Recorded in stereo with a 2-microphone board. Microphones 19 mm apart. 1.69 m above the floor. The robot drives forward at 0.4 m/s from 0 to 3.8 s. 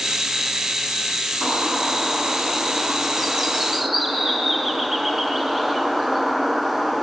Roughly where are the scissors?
I don't hear scissors.